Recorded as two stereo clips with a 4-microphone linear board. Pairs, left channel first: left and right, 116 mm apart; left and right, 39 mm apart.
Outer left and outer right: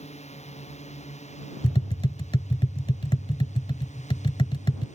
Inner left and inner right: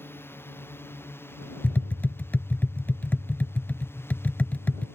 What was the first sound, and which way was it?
A drone, 65° left (ahead or behind).